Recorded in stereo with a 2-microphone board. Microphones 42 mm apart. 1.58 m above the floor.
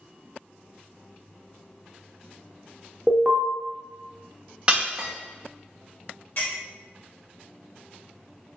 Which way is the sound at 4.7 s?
30° right (ahead or behind).